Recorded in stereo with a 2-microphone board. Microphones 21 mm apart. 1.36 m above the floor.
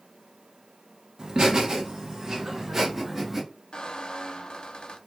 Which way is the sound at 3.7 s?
60° left (ahead or behind).